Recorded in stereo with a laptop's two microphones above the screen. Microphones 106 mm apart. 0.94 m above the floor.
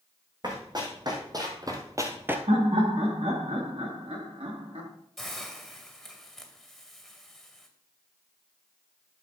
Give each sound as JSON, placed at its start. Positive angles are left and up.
{"t": 0.4, "sound": "running footsteps", "side_deg": -40, "distance_m": 2.5}
{"t": 2.5, "sound": "laughter", "side_deg": -70, "distance_m": 2.0}
{"t": 5.2, "sound": "a hiss", "side_deg": 0, "distance_m": 2.0}